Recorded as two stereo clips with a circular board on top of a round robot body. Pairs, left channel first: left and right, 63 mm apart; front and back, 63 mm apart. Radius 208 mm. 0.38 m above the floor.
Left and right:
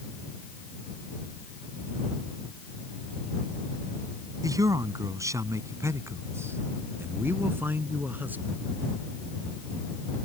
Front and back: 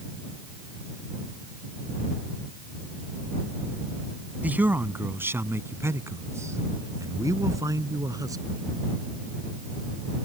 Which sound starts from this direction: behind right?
A man speaking, at 4.4 s.